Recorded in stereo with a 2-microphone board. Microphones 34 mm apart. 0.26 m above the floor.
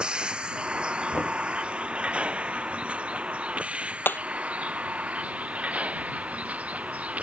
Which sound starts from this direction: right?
A vehicle, at 0.0 s.